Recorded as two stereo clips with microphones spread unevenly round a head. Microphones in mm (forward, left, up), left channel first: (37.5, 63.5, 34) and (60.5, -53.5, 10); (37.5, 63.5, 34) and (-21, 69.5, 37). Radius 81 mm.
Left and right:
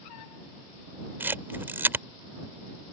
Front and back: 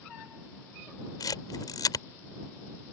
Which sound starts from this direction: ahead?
A camera shutter, at 1.2 s.